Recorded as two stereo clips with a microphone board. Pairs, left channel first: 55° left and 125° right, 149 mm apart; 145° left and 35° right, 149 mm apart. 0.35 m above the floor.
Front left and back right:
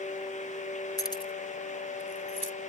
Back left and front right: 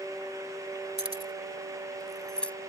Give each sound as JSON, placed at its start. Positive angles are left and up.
{"t": 1.0, "sound": "keys jangling", "azimuth_deg": -5}